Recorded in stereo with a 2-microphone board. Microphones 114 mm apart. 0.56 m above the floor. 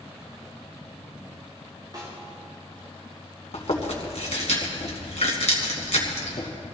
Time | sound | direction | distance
1.9 | a snare drum | 35° right (ahead or behind) | 6 m
3.5 | chewing | 70° left (ahead or behind) | 2.5 m